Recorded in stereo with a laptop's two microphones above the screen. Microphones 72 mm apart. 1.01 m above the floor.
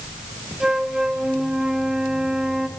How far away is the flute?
About 1.2 m.